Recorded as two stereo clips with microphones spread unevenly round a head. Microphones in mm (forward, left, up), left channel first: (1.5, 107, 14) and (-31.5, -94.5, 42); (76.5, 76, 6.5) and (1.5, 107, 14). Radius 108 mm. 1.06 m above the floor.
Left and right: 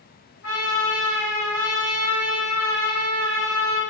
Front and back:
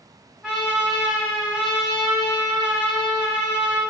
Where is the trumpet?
80° left, 1.3 m.